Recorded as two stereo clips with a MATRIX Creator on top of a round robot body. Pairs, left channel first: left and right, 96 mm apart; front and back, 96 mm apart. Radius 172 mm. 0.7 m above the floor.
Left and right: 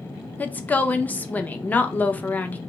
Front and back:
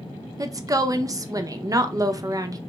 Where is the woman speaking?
155° left, 0.6 m.